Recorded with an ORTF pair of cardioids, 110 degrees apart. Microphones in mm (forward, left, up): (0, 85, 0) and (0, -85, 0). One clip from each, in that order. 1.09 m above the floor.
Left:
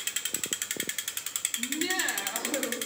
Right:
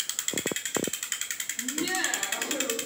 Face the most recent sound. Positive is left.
turn(degrees=10)